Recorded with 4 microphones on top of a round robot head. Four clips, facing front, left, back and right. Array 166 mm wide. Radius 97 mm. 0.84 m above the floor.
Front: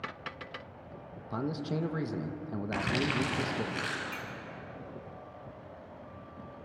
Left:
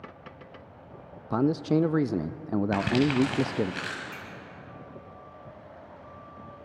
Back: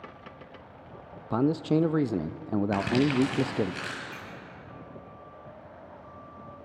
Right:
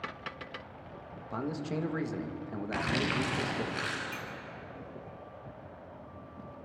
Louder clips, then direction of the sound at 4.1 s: Right 1 dB, front 1 dB; 10° left.